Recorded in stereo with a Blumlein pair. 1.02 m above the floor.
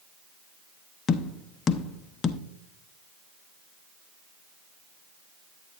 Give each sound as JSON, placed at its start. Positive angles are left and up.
{"t": 1.1, "sound": "tapping", "azimuth_deg": 25, "distance_m": 0.6}